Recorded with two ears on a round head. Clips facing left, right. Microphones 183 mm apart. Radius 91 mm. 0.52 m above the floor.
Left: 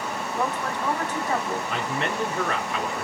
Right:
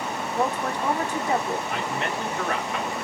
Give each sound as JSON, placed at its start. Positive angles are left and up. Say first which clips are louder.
{"t": 0.3, "sound": "a woman speaking", "louder": "right 3 dB", "side_deg": -15, "distance_m": 0.6}
{"t": 1.7, "sound": "a man speaking", "louder": "left 1 dB", "side_deg": 50, "distance_m": 2.5}